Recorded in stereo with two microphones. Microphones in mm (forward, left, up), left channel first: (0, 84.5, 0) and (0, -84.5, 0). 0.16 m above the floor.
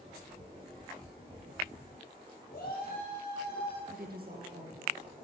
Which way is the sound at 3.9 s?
65° right (ahead or behind).